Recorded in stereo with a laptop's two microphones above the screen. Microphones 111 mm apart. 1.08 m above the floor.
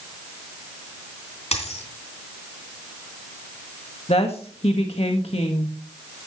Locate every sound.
1.5 s a dropped coin: 75° left (ahead or behind), 3 m
4.1 s a woman speaking: 65° left (ahead or behind), 1.4 m